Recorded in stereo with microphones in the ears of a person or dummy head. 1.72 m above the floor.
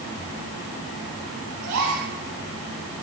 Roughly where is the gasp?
Right.